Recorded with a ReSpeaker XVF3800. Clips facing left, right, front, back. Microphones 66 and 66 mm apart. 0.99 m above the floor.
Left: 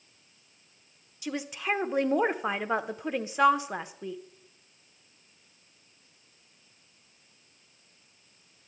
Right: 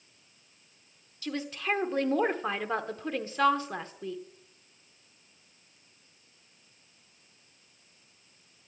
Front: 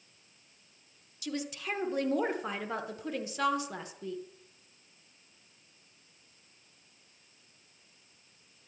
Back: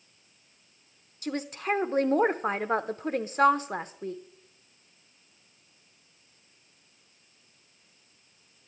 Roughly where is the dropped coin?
I don't hear a dropped coin.